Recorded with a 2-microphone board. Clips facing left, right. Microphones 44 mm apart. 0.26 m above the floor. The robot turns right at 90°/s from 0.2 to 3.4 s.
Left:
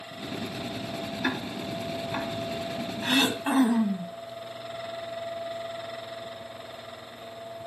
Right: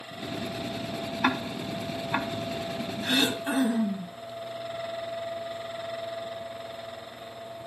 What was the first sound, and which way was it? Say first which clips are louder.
Ticking: right 4 dB; 50° right (ahead or behind).